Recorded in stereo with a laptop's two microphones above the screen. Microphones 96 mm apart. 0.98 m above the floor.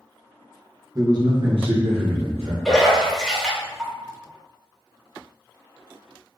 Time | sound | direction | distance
0.9 | a man speaking | 35° right (ahead or behind) | 0.9 m
2.6 | a splash | centre (ahead or behind) | 1.3 m